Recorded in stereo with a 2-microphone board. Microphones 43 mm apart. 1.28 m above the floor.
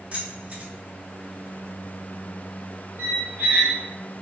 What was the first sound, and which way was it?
Keys jangling, 40° right (ahead or behind).